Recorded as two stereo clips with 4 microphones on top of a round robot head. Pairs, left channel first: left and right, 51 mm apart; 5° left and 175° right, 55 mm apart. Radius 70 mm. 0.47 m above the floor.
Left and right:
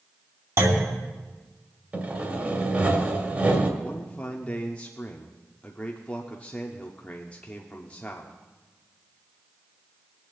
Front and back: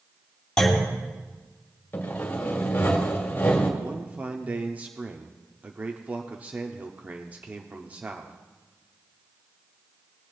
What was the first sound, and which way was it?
A clunk, 75° right.